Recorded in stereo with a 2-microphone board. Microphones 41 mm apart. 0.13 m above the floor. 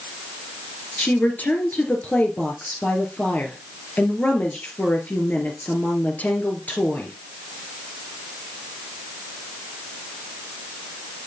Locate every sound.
1.0 s a woman speaking: 45° left (ahead or behind), 2.5 m